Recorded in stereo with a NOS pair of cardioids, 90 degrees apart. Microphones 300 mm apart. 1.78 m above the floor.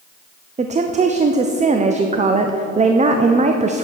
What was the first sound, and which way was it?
A woman speaking, 25° right.